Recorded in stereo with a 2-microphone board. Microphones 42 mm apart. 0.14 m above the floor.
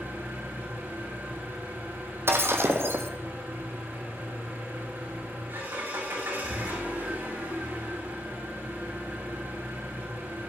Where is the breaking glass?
75° right (ahead or behind), 1.3 m.